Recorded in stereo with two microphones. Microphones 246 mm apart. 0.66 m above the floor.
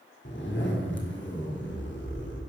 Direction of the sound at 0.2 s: 50° left (ahead or behind).